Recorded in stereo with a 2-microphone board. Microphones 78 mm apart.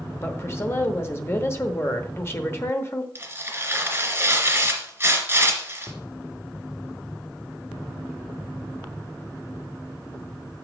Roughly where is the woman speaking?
Left.